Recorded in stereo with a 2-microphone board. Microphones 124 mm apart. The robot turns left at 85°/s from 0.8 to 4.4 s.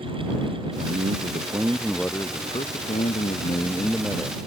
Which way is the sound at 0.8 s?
85° right.